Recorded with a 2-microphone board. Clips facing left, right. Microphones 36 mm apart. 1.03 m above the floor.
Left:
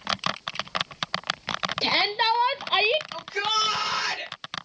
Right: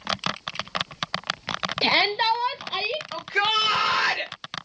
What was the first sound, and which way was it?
A shout, 20° right (ahead or behind).